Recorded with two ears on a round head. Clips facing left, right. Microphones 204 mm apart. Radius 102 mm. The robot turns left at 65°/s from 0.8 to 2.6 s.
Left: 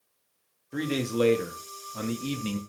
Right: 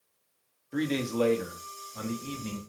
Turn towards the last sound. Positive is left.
turn(degrees=65)